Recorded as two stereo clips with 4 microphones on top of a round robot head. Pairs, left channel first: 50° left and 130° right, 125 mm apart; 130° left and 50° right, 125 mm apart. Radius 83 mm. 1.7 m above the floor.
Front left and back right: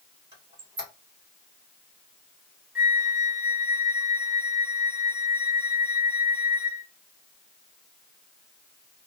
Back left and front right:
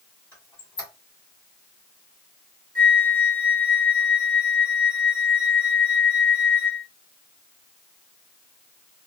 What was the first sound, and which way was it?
A squeak, 175° right.